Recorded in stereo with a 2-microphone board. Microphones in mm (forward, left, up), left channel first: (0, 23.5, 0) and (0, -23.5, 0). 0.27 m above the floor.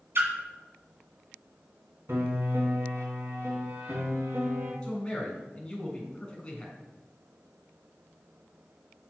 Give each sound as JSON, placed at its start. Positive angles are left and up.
{"t": 0.1, "sound": "a splash", "side_deg": -55, "distance_m": 2.0}
{"t": 2.1, "sound": "a piano", "side_deg": -60, "distance_m": 2.0}
{"t": 4.8, "sound": "a man speaking", "side_deg": 20, "distance_m": 3.0}